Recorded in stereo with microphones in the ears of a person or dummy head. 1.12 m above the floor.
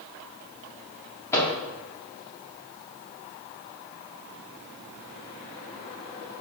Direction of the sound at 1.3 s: 15° left (ahead or behind).